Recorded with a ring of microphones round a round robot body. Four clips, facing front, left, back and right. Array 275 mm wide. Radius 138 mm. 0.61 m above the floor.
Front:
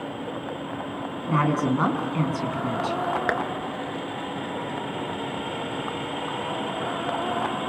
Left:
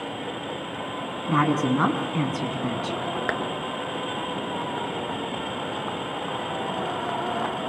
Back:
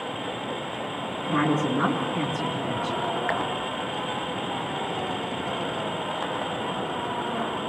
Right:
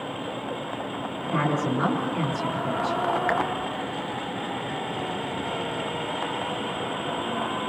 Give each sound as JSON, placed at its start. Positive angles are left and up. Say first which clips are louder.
{"t": 1.3, "sound": "a woman speaking", "louder": "left 3 dB, front 1 dB", "azimuth_deg": 60, "distance_m": 7.5}
{"t": 3.3, "sound": "tapping", "louder": "right 2 dB, front 1 dB", "azimuth_deg": 30, "distance_m": 2.5}